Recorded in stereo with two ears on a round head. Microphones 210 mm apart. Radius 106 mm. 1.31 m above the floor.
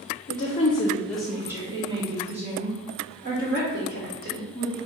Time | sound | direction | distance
0.3 | a woman speaking | 40° left (ahead or behind) | 0.6 m